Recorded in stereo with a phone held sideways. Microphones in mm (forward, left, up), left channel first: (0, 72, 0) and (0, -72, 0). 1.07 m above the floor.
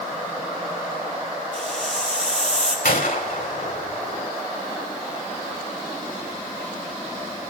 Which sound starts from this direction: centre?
A hiss, at 1.5 s.